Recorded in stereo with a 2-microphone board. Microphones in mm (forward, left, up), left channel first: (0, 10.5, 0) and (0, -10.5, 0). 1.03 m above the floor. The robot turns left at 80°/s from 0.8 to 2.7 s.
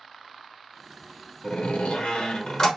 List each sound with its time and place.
1.4 s a door slam: 140° left, 0.8 m; by 2.7 s 40° left, 0.8 m